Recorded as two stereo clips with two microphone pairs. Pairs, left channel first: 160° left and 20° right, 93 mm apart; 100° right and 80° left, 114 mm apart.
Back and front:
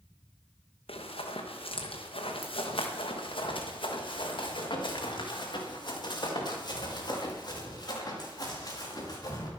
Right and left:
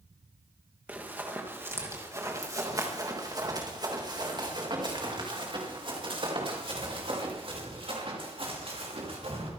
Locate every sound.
0.9 s running footsteps: 155° left, 3.5 m; by 9.5 s 110° left, 7 m